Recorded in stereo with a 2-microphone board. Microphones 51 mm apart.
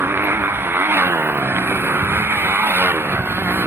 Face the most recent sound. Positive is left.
turn(degrees=-50)  # may be behind; listen again after turning